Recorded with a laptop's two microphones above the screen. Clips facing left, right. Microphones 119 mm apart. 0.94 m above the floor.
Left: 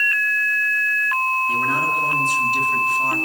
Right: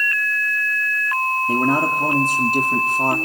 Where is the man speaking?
50° right (ahead or behind), 2 m.